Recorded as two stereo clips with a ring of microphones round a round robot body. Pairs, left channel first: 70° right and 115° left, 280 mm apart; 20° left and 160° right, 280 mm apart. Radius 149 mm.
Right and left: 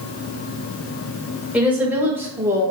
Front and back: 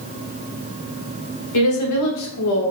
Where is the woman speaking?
30° left, 1.6 m; by 2.7 s 35° left, 0.9 m.